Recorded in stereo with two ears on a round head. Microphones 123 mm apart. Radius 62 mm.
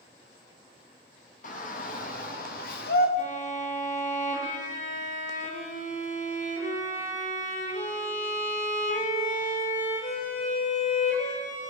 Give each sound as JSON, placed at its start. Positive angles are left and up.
{"t": 1.4, "sound": "a shout", "side_deg": 60, "distance_m": 3.0}
{"t": 3.2, "sound": "a violin", "side_deg": 55, "distance_m": 7.0}